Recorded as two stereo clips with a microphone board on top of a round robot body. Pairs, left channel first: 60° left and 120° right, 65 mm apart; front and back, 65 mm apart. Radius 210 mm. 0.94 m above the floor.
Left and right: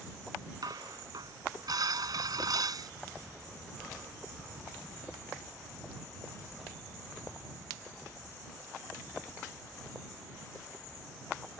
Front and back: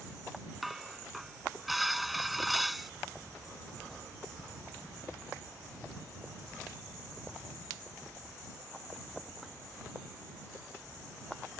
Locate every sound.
0.6 s dishes clattering: 90° right